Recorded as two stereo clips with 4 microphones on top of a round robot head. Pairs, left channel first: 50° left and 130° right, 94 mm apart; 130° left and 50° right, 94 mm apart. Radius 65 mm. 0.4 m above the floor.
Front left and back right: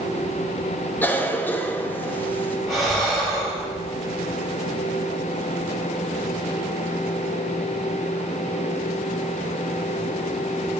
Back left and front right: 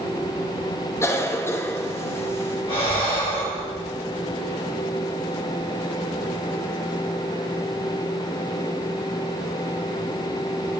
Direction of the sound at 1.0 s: 100° left.